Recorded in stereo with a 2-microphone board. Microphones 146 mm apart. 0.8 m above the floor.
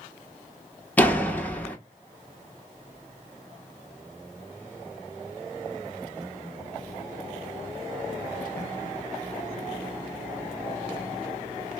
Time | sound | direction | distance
1.0 | a door slam | 10° left (ahead or behind) | 1.1 m